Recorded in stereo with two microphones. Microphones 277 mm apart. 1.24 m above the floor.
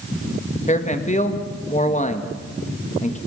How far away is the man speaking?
About 1.9 m.